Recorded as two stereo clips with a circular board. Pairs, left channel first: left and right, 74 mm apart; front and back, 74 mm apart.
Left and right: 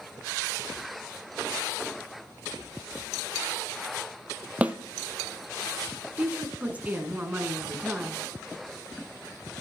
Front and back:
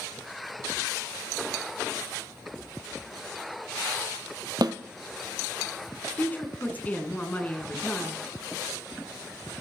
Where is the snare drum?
160° right, 0.8 m.